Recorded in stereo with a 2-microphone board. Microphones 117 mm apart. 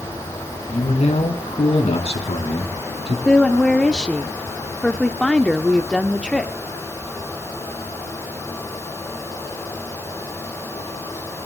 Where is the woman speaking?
5° left (ahead or behind), 0.7 m.